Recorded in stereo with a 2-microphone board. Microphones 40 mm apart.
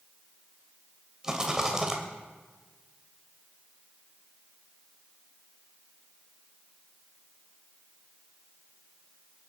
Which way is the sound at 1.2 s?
15° right (ahead or behind).